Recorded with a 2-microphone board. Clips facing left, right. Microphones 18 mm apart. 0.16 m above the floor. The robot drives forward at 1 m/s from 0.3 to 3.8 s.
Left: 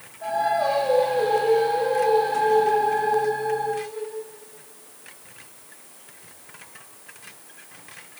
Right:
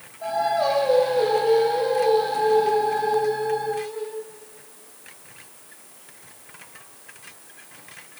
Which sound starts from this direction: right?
Singing, at 0.2 s.